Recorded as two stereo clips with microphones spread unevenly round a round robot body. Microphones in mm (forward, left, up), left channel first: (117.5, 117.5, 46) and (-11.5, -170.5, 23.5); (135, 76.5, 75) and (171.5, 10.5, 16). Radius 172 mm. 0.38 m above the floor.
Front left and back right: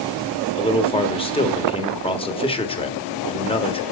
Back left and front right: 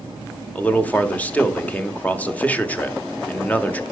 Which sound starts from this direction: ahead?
A man speaking, at 0.6 s.